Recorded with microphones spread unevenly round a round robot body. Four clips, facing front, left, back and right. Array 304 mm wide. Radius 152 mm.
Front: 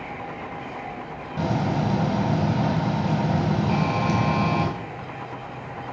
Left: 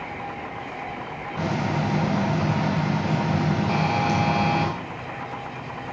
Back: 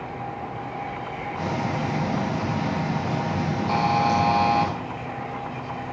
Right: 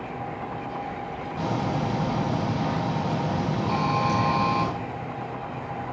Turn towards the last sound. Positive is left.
turn(degrees=165)